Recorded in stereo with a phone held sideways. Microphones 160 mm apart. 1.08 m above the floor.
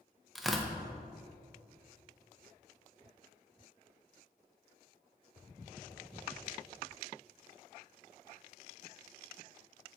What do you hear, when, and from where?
0.3 s tearing paper: centre (ahead or behind), 0.5 m